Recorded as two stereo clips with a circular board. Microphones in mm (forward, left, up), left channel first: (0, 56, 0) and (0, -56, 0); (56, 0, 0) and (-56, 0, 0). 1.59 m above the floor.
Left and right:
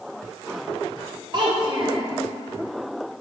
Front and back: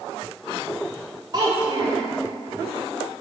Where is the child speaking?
130° right, 2.5 m.